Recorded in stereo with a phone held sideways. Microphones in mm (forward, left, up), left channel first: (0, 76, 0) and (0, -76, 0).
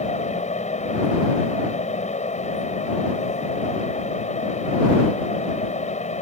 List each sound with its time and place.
0.0 s a fan: 50° left (ahead or behind)